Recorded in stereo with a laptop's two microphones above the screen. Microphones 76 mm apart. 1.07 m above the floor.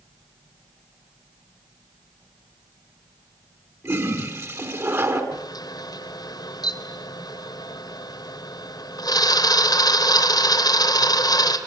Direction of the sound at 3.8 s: 40° right (ahead or behind).